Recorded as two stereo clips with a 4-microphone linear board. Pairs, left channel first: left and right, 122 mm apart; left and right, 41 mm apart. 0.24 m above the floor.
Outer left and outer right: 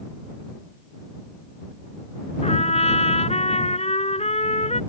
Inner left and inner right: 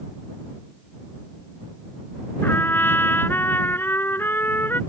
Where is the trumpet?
65° left (ahead or behind).